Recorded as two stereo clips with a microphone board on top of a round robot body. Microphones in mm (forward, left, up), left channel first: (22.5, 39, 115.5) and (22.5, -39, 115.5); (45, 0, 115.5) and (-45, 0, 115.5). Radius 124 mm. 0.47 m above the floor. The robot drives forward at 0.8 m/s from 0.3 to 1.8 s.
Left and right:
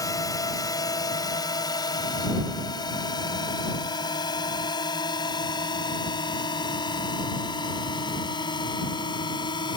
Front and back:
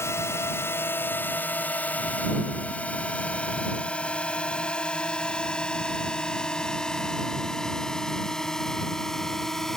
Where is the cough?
I don't hear a cough.